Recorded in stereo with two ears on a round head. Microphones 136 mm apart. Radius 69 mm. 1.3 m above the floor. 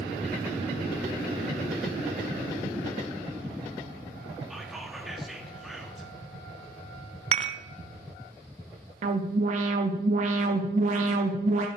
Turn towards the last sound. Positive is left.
turn(degrees=-55)  # may be behind; listen again after turning